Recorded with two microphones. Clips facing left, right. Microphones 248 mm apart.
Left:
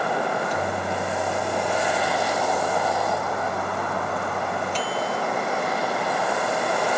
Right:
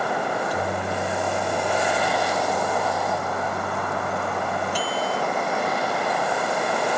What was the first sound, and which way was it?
A microwave, 10° right (ahead or behind).